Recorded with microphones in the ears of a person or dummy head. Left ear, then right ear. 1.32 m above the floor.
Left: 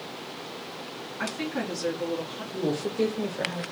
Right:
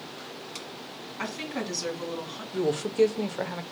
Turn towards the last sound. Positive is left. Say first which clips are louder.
# right 3 dB
turn(degrees=-40)  # may be behind; listen again after turning